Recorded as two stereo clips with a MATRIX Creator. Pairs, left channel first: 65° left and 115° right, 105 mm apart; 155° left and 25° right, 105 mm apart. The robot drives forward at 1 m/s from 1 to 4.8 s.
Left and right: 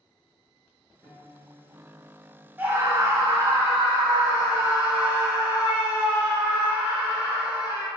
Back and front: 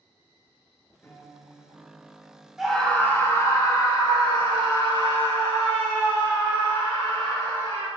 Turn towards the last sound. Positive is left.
turn(degrees=-170)